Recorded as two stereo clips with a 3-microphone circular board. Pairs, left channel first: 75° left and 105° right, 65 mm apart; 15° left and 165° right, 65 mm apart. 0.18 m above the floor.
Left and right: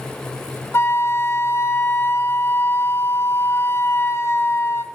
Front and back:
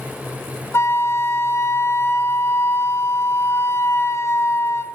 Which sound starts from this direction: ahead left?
A flute, at 0.7 s.